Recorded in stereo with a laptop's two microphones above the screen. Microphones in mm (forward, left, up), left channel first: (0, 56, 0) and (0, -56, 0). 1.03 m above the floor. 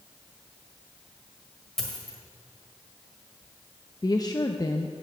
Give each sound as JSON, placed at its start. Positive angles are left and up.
{"t": 1.8, "sound": "a dropped coin", "side_deg": 5, "distance_m": 1.6}
{"t": 4.0, "sound": "a woman speaking", "side_deg": 40, "distance_m": 0.7}